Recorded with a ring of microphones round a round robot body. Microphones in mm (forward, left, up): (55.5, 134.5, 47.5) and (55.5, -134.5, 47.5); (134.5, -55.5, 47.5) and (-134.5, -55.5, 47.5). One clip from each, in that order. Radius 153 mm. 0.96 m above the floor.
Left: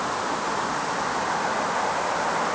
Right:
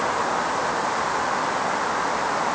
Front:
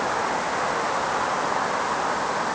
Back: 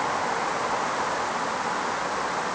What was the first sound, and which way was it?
Only background noise.